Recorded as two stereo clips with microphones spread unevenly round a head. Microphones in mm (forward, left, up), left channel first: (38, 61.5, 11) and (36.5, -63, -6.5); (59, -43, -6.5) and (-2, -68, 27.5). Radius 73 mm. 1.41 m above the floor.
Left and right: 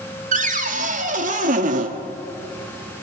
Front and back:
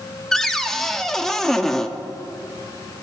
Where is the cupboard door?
70° right, 1.9 m.